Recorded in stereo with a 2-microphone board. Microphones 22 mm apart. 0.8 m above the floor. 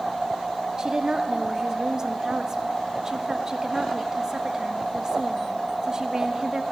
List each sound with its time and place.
0.8 s a woman speaking: 30° right (ahead or behind), 1.3 m